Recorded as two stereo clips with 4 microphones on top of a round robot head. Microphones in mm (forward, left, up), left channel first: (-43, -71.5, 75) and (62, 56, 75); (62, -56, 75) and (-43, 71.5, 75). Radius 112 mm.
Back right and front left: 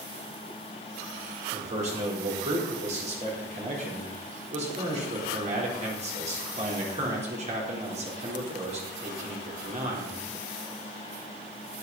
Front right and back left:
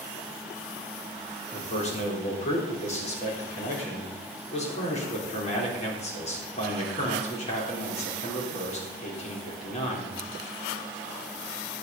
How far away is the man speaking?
About 4 m.